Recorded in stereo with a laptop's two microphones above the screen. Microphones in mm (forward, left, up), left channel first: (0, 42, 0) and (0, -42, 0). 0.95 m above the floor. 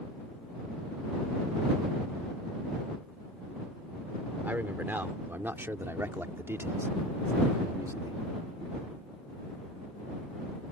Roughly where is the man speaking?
Right.